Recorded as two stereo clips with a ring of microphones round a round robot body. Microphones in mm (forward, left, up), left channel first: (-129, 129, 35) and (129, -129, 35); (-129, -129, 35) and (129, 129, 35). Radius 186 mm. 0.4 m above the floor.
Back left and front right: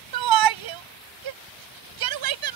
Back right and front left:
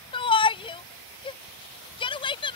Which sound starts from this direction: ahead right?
A shout, at 0.1 s.